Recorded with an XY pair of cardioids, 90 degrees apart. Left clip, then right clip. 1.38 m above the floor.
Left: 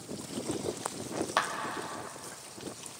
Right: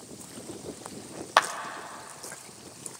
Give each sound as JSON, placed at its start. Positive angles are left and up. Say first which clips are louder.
{"t": 1.4, "sound": "a clap", "louder": "right 8 dB", "azimuth_deg": -65, "distance_m": 0.9}